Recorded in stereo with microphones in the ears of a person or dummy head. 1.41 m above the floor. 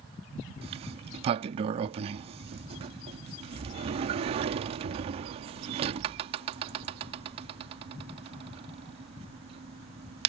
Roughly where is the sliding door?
Right.